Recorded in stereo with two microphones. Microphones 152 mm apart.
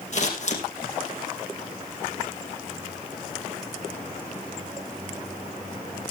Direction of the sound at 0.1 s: 50° left (ahead or behind).